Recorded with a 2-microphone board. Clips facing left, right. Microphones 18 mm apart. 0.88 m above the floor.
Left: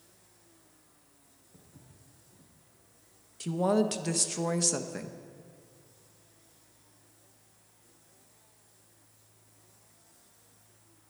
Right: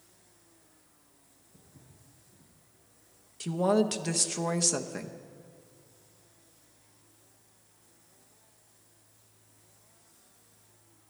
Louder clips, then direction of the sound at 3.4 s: Right 1 dB; 10° right (ahead or behind).